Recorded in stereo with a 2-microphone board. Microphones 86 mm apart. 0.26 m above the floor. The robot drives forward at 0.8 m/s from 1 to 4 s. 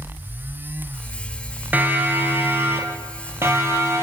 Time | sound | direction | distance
1.7 | a siren | 20° right (ahead or behind) | 4 m